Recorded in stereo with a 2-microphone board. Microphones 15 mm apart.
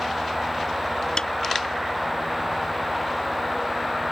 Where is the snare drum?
60° left (ahead or behind).